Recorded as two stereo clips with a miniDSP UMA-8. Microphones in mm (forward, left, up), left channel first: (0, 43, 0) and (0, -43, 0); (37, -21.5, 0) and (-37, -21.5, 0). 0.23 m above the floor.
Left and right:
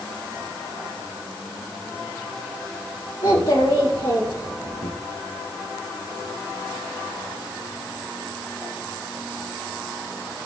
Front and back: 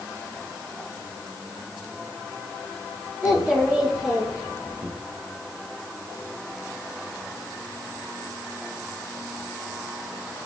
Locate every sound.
3.2 s a child speaking: 95° left, 4 m; by 4.9 s 90° left, 3 m